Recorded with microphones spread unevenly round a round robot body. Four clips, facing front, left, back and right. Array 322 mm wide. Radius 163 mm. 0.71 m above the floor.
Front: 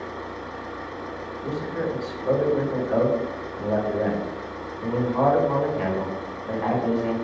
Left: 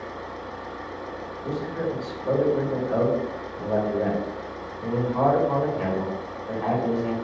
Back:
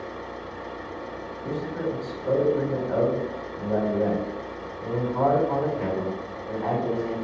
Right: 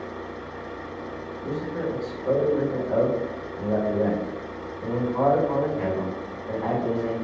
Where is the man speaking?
10° left, 1.5 m.